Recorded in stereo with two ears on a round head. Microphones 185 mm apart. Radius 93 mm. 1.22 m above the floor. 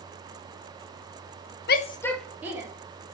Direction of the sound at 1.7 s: 50° left (ahead or behind).